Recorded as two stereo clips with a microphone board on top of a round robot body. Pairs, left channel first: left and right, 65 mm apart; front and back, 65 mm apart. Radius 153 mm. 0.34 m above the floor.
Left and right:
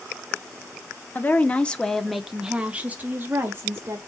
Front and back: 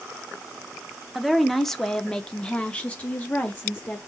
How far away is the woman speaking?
About 1.2 m.